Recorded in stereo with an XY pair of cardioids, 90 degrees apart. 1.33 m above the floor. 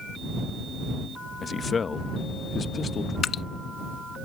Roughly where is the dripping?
Ahead left.